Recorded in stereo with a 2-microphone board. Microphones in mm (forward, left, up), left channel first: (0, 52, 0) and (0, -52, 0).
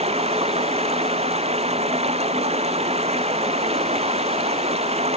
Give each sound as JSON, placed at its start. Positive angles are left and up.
{"t": 0.0, "sound": "running water", "side_deg": -80}